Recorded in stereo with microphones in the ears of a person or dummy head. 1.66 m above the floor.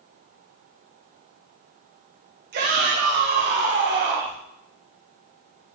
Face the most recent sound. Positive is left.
turn(degrees=-55)  # may be behind; listen again after turning